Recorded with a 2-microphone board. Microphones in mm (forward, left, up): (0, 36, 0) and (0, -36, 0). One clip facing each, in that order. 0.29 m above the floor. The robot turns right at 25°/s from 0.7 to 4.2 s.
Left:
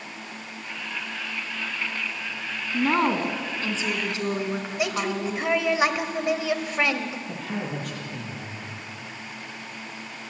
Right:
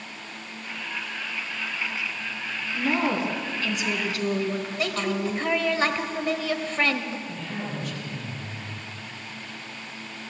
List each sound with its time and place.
2.7 s a woman speaking: 120° left, 3 m; by 5.5 s 155° left, 3 m
4.8 s a woman speaking: 10° left (ahead or behind), 1.6 m
7.3 s a man speaking: 55° left (ahead or behind), 8 m